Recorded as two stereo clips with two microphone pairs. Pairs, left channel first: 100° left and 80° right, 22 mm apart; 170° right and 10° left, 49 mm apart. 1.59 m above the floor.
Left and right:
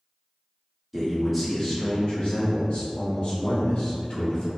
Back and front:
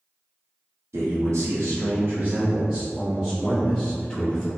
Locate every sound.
0.9 s a man speaking: straight ahead, 0.9 m; by 4.5 s 120° left, 1.8 m